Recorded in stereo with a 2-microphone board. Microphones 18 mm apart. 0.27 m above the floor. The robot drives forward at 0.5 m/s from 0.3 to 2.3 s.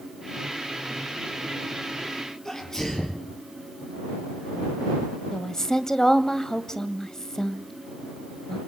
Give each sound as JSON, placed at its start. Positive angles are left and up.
{"t": 2.5, "sound": "a sneeze", "side_deg": 30, "distance_m": 5.5}
{"t": 5.3, "sound": "a woman speaking", "side_deg": 25, "distance_m": 1.6}